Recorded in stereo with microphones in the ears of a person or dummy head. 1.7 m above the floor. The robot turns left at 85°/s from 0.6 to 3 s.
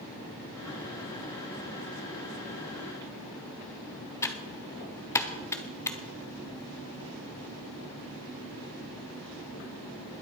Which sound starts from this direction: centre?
Typing on a keyboard, at 4.2 s.